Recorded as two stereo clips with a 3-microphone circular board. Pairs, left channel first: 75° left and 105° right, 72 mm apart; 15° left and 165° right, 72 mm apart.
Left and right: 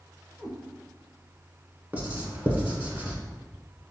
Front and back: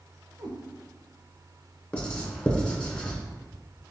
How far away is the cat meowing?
About 1.5 m.